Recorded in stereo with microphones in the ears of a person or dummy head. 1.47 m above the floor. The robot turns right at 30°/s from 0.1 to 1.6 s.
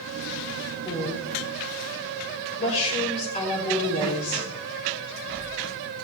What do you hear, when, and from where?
0.8 s a woman speaking: 10° left (ahead or behind), 5.5 m; by 4.5 s 35° left (ahead or behind), 5.5 m